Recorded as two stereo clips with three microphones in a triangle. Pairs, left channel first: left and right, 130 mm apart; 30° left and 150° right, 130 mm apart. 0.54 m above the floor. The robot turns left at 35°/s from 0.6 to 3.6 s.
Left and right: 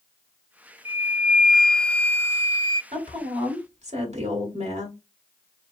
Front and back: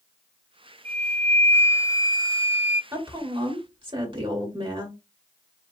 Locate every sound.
0.8 s a flute: 160° right, 0.6 m; by 2.8 s 135° left, 0.6 m
2.9 s a woman speaking: 85° right, 1.6 m; by 4.9 s 105° right, 1.6 m